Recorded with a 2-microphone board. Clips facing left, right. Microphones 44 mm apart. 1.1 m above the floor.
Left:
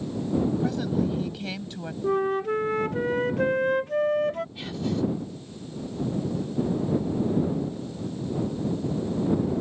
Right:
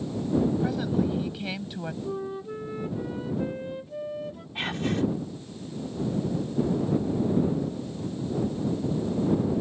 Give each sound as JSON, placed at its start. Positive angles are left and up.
{"t": 0.6, "sound": "a woman speaking", "side_deg": -10}
{"t": 2.0, "sound": "a flute", "side_deg": 65}
{"t": 4.5, "sound": "whispering", "side_deg": -50}